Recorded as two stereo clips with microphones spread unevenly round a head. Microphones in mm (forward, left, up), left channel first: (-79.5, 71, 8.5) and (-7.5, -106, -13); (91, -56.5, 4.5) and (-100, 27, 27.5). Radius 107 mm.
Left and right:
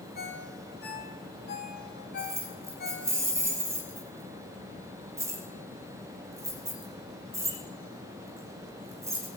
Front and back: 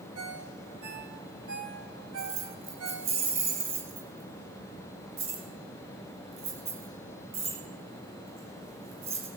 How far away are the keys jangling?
About 7 m.